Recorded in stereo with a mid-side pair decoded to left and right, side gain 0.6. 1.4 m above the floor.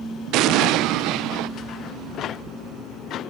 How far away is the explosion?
About 0.8 m.